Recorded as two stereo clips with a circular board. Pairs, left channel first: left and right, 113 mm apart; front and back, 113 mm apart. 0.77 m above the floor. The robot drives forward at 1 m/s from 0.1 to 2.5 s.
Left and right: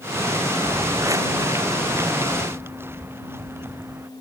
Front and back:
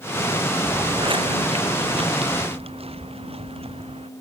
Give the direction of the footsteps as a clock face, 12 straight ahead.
4 o'clock.